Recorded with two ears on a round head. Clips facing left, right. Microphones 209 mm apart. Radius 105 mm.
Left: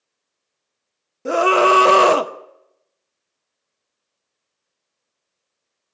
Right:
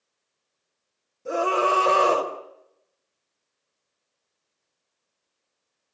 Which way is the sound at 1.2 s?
80° left.